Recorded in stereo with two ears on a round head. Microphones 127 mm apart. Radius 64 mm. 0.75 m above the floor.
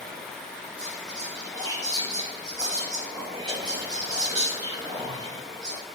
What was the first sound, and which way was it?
Whispering, 30° right (ahead or behind).